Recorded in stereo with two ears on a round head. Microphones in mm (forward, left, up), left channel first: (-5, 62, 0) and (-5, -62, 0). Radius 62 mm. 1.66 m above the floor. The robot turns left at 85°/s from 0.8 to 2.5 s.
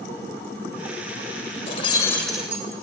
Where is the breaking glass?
55° left, 2.5 m; by 2.6 s 15° right, 2.5 m.